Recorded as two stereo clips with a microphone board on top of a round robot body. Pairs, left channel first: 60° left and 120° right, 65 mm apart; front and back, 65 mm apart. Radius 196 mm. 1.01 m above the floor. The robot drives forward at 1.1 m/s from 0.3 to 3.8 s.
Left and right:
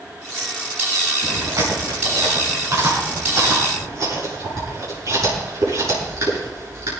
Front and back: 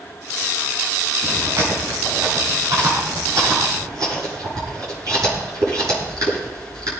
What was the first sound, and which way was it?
Chewing, 145° right.